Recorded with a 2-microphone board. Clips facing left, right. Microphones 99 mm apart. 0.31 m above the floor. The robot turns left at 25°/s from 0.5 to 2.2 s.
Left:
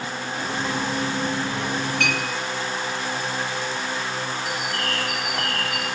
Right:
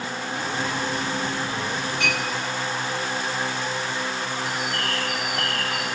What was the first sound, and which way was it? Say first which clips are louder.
A clink: even; 60° left (ahead or behind).